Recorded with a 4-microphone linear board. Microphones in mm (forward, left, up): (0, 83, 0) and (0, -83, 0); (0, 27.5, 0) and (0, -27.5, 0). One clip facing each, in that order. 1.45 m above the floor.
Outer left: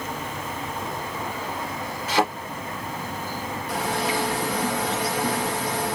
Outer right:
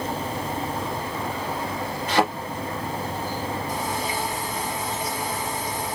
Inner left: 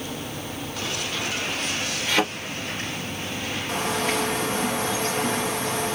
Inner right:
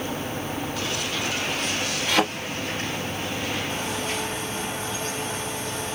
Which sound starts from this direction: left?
A bird, at 3.7 s.